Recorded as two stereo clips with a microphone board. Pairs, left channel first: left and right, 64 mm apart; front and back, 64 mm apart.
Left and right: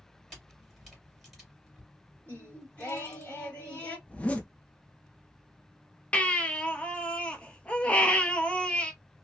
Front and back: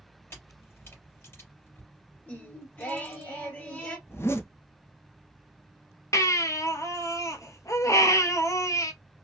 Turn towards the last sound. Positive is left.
turn(degrees=20)